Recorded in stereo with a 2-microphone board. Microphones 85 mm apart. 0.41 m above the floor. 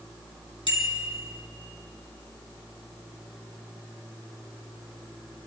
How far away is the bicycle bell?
About 3 m.